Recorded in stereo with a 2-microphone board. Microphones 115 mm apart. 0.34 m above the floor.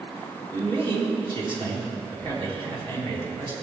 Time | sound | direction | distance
0.5 | a man speaking | 50° right (ahead or behind) | 2.5 m